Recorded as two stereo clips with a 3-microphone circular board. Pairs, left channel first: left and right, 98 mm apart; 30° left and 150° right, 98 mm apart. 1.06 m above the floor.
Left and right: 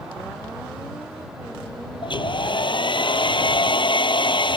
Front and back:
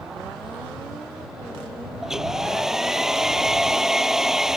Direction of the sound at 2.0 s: 125° left.